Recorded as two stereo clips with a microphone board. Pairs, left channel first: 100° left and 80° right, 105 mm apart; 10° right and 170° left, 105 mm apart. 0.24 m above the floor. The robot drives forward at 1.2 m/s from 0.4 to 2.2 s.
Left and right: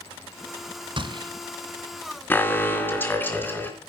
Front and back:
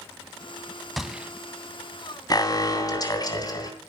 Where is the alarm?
35° left, 3 m.